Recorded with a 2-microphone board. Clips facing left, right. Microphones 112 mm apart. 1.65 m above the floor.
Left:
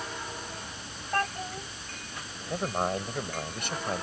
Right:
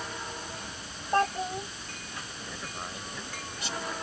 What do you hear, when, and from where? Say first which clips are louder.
1.1 s a child speaking: right 4 dB; 20° right (ahead or behind)
2.5 s a man speaking: left 14 dB; 55° left (ahead or behind)